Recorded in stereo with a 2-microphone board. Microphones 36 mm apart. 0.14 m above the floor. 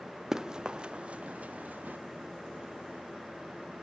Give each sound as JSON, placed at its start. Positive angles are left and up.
{"t": 0.3, "sound": "running footsteps", "side_deg": -15, "distance_m": 1.1}